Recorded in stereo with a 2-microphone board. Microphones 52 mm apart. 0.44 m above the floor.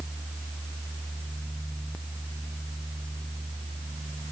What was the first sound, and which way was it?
Only background noise.